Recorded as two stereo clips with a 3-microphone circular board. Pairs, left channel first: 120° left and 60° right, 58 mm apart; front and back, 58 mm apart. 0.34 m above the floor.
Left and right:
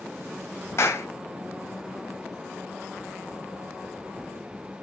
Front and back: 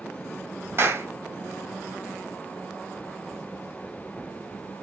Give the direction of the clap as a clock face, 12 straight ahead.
7 o'clock.